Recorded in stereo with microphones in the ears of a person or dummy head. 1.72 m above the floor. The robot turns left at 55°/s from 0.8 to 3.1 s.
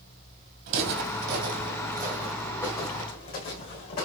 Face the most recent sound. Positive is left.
turn(degrees=45)  # may be behind; listen again after turning